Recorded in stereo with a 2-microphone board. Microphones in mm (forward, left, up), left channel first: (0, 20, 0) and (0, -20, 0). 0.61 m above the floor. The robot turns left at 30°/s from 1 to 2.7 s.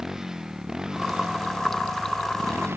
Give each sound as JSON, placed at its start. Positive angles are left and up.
{"t": 0.0, "sound": "a motorcycle", "side_deg": -10}